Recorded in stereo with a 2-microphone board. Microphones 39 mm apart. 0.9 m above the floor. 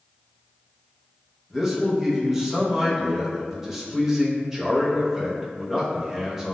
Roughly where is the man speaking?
Centre.